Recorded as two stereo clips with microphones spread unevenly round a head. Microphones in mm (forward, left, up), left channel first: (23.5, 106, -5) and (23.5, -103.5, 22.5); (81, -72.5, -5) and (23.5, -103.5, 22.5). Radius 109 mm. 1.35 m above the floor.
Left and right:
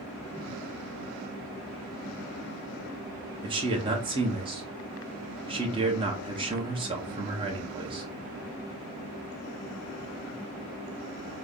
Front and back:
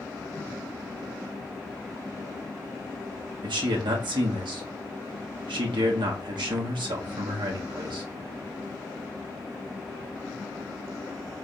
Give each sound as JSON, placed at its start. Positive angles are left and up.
{"t": 3.4, "sound": "a man speaking", "azimuth_deg": -160, "distance_m": 1.0}